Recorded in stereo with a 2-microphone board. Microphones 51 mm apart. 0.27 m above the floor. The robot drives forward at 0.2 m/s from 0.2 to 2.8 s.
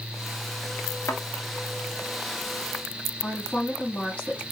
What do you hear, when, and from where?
1.1 s a thud: 75° left (ahead or behind), 1.1 m
3.2 s a woman speaking: 30° left (ahead or behind), 3 m